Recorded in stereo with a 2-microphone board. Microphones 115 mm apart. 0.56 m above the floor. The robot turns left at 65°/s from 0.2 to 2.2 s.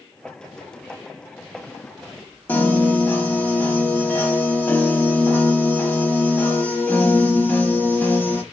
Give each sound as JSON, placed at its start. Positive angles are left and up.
{"t": 2.5, "sound": "a piano", "side_deg": 15, "distance_m": 0.9}